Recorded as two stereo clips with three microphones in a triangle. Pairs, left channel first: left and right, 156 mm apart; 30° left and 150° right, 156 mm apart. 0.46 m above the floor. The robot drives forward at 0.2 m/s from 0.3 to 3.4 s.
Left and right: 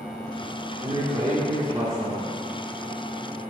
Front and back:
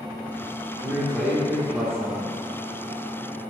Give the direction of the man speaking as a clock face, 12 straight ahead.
2 o'clock.